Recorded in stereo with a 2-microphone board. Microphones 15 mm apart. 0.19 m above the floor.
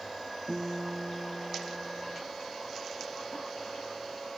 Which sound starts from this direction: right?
A guitar, at 0.5 s.